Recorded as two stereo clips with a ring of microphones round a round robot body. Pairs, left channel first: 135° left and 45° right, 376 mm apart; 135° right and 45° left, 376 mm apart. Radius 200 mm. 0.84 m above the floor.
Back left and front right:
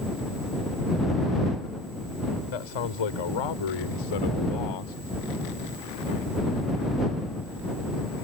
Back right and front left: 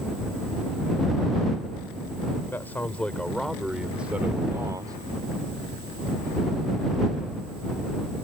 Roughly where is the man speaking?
Behind left.